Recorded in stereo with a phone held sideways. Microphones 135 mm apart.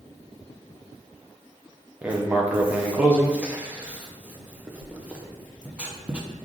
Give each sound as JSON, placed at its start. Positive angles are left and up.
{"t": 2.0, "sound": "writing", "side_deg": -10, "distance_m": 0.5}